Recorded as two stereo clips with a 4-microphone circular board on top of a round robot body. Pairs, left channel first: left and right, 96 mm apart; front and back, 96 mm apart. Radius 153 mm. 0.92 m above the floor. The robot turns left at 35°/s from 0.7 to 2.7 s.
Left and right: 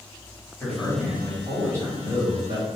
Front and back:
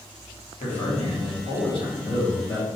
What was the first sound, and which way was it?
A man speaking, 10° left.